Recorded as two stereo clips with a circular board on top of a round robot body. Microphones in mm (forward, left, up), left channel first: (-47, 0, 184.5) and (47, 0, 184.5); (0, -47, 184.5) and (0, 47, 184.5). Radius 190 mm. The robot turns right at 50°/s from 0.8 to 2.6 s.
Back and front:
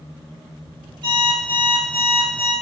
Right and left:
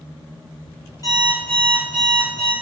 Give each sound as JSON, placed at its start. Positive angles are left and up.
{"t": 1.0, "sound": "an alarm clock", "azimuth_deg": -35, "distance_m": 0.7}